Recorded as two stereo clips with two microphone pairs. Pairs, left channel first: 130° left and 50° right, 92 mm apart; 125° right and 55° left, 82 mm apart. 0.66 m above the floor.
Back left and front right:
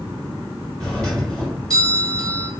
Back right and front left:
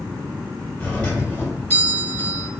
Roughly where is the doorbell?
Behind right.